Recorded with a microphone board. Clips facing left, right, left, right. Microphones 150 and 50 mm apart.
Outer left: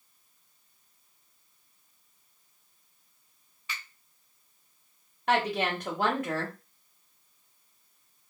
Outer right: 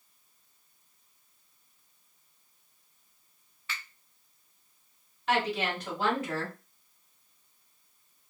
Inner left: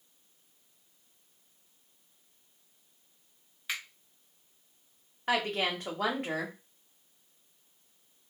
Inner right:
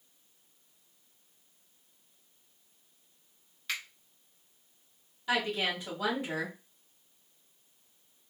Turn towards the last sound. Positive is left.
turn(degrees=60)  # may be behind; listen again after turning